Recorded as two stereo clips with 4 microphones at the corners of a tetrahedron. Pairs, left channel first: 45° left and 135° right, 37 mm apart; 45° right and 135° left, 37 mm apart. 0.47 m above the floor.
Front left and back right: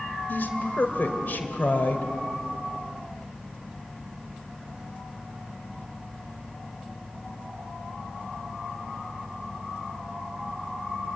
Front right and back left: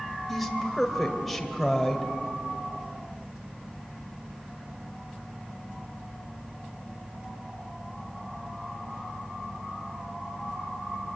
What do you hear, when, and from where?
0.3 s a woman speaking: 40° left, 2.5 m